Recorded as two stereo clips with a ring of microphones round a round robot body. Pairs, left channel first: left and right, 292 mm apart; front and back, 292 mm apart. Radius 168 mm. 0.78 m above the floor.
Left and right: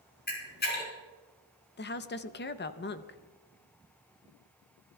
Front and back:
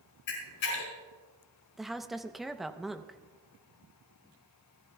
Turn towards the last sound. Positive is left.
turn(degrees=90)